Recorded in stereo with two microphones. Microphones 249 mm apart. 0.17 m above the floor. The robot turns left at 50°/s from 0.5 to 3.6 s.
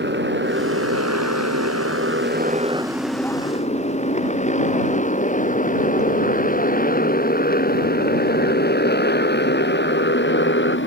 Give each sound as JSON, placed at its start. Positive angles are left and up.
{"t": 0.0, "sound": "a motorcycle", "side_deg": -45}